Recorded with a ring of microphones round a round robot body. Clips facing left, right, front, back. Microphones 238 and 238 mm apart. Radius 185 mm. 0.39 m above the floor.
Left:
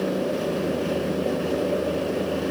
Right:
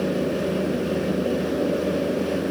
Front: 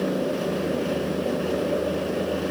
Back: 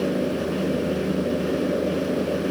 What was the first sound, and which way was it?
Only background noise.